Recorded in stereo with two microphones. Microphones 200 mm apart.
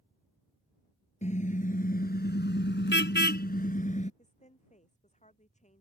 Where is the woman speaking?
35° left (ahead or behind).